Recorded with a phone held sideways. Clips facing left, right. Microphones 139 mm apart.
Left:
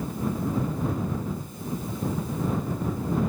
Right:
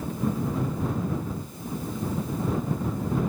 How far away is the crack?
I don't hear a crack.